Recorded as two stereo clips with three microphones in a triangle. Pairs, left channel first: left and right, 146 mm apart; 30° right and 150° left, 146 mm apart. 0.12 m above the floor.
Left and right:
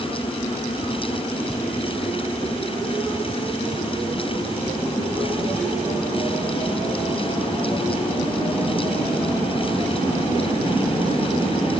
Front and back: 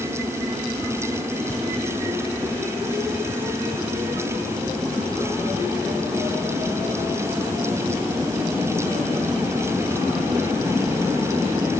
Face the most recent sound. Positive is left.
No sound to turn to.